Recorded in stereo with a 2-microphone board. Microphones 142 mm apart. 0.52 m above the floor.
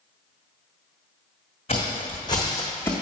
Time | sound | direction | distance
1.7 | footsteps | 45° left (ahead or behind) | 1.5 m